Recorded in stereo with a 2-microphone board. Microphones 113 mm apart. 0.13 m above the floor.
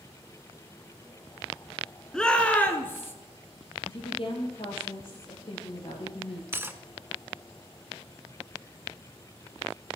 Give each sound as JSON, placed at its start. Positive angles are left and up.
{"t": 2.1, "sound": "a shout", "side_deg": 5, "distance_m": 1.3}
{"t": 3.9, "sound": "a woman speaking", "side_deg": 55, "distance_m": 3.5}
{"t": 6.5, "sound": "cutlery clinking", "side_deg": -20, "distance_m": 0.7}